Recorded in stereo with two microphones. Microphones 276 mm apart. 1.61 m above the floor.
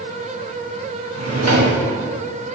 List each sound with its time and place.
1.1 s a drawer: 65° right (ahead or behind), 1.6 m